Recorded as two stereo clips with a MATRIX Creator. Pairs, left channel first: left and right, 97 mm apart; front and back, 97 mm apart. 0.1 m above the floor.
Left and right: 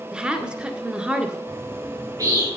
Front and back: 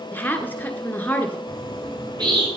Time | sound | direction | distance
0.1 | a woman speaking | 30° right | 1.1 m
1.5 | a bird | 140° right | 3.5 m